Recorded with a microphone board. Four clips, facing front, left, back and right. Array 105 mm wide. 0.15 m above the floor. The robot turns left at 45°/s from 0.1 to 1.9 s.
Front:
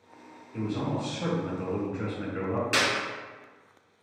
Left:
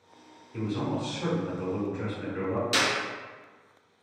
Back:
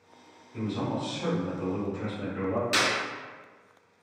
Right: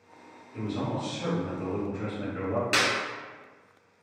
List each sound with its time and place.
0.5 s a man speaking: 65° left, 1.2 m; by 2.6 s straight ahead, 1.2 m
2.7 s a clap: 70° right, 1.0 m